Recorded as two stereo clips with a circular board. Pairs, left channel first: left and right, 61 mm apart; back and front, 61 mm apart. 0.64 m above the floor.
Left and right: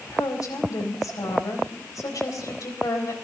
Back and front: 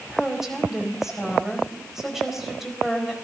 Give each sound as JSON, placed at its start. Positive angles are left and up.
{"t": 0.1, "sound": "a woman speaking", "azimuth_deg": 85, "distance_m": 4.0}